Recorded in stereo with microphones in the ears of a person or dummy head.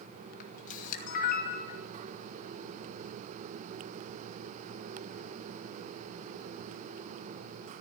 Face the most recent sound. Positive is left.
turn(degrees=50)  # may be behind; listen again after turning